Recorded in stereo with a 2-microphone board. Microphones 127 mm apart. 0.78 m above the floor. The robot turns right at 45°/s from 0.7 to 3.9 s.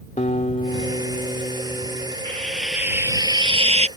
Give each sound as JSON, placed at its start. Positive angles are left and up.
{"t": 0.2, "sound": "a guitar", "azimuth_deg": 105}
{"t": 2.2, "sound": "frying", "azimuth_deg": 165}